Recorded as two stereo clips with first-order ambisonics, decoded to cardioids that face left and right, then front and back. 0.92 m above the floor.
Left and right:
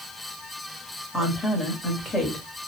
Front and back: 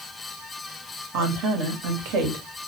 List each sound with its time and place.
1.1 s a woman speaking: 175° left, 1.2 m